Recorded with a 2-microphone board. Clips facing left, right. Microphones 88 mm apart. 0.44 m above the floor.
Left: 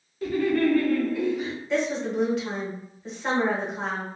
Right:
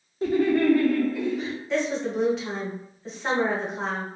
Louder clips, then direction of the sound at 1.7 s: Even; centre (ahead or behind).